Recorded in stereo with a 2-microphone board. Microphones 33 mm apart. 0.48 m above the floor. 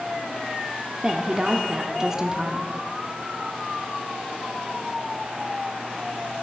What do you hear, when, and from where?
1.0 s a woman speaking: 15° right (ahead or behind), 0.8 m